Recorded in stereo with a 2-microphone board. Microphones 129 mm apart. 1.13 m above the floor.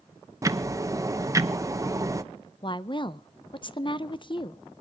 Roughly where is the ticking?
Right.